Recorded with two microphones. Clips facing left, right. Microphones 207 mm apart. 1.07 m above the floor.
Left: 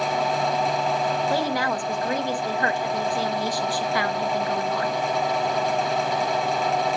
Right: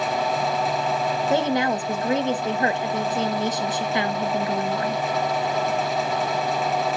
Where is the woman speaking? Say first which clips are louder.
Right 3 dB; 20° right (ahead or behind), 1.1 m.